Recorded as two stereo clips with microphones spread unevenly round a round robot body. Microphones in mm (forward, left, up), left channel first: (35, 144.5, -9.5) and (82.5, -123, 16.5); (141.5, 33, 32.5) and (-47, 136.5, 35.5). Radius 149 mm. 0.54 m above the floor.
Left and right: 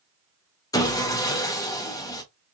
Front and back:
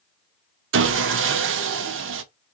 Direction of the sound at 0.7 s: 175° left.